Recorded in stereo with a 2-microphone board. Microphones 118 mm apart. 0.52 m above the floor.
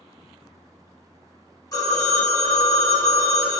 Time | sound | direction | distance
1.7 | a phone ringing | 30° left (ahead or behind) | 1.0 m